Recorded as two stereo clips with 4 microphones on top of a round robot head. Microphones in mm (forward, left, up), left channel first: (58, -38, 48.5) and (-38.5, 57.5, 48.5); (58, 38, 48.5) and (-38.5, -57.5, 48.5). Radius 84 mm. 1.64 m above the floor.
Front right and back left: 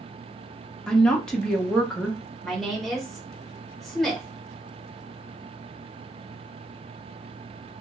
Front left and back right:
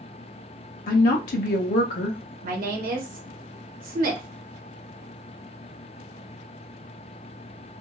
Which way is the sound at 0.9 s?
40° left.